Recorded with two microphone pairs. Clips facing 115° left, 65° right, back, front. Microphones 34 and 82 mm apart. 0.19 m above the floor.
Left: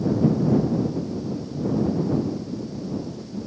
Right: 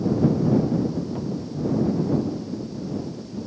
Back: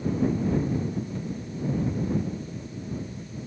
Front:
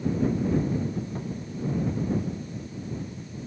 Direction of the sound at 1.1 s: 55° right.